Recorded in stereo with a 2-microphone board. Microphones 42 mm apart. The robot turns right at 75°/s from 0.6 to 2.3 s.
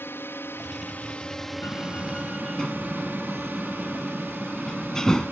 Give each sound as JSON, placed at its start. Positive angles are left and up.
{"t": 0.0, "sound": "a drone", "side_deg": 60}
{"t": 1.6, "sound": "a door slam", "side_deg": 65}